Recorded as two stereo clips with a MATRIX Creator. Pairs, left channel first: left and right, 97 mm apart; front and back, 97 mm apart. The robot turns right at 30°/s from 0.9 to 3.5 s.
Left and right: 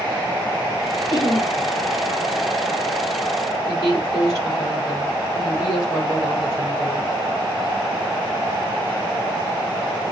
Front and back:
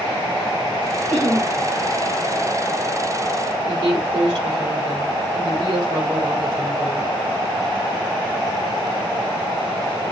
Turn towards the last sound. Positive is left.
turn(degrees=140)